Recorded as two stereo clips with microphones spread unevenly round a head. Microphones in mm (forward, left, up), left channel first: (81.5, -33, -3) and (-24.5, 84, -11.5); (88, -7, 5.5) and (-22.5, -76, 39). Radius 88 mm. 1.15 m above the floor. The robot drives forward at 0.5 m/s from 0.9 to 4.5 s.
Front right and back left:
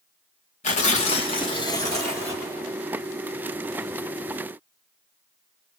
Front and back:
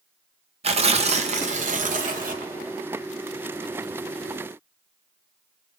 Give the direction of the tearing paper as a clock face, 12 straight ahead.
3 o'clock.